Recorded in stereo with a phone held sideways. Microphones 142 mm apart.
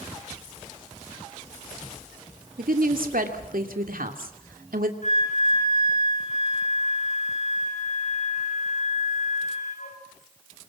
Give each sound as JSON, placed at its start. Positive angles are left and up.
{"t": 2.6, "sound": "a woman speaking", "side_deg": -85, "distance_m": 2.5}
{"t": 5.0, "sound": "a flute", "side_deg": 60, "distance_m": 6.0}